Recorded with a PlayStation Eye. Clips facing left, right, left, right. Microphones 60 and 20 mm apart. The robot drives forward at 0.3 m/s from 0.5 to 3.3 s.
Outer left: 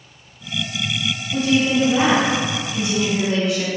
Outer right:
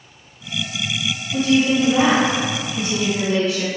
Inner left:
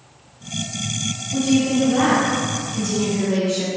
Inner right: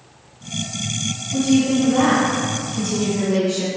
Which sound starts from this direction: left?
A woman speaking, at 1.3 s.